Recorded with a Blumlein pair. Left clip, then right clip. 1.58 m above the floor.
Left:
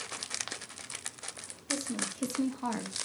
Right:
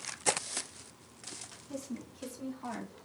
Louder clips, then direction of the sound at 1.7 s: Left 9 dB; 35° left.